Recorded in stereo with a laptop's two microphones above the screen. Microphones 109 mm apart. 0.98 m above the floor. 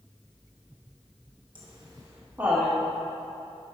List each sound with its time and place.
1.6 s laughter: 50° right (ahead or behind), 0.8 m; by 2.8 s 10° right (ahead or behind), 1.5 m